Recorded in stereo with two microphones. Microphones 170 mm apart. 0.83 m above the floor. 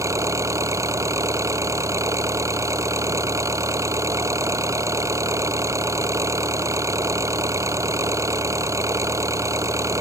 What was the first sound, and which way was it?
An engine running, 20° right (ahead or behind).